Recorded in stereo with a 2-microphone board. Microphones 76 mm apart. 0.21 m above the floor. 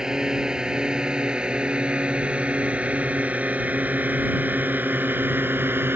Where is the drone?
10° right (ahead or behind); by 6.0 s 30° right (ahead or behind).